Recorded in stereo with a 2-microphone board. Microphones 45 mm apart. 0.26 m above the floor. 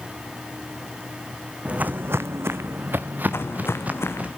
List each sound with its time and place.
1.6 s footsteps: 25° right (ahead or behind), 0.7 m; by 4.3 s 35° right (ahead or behind), 2 m
3.3 s footsteps: 70° left (ahead or behind), 1.2 m